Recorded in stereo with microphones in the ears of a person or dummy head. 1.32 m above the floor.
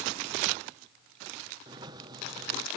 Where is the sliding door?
25° right (ahead or behind).